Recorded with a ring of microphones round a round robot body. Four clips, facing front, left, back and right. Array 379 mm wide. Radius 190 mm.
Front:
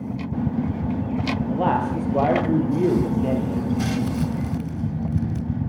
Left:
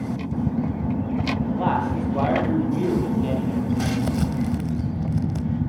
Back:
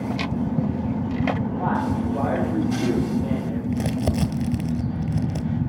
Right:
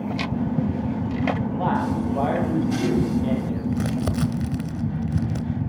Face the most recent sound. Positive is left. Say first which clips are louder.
# left 1 dB, front 1 dB
turn(degrees=-150)